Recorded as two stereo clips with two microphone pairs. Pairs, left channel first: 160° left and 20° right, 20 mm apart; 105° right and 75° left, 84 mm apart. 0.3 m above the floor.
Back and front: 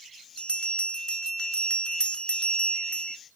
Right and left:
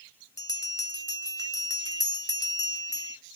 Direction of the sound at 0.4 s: 155° right.